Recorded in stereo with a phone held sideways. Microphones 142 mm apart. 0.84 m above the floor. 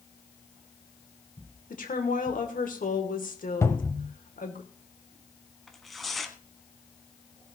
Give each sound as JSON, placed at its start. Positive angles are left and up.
{"t": 1.7, "sound": "a woman speaking", "side_deg": 75, "distance_m": 2.5}
{"t": 3.6, "sound": "a cupboard door", "side_deg": 20, "distance_m": 1.3}
{"t": 5.7, "sound": "tearing paper", "side_deg": 0, "distance_m": 1.4}